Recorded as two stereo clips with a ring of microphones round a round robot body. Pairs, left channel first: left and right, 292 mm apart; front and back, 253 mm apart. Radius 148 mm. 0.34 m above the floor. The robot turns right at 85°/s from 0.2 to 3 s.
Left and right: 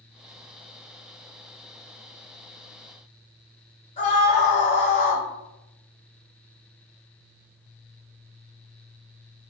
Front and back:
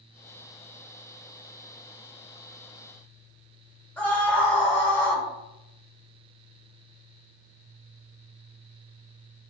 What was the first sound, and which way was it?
A scream, 75° left.